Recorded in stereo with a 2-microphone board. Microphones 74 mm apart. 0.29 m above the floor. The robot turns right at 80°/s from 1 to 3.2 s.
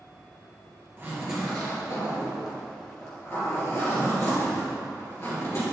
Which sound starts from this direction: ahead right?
A zipper, at 1.0 s.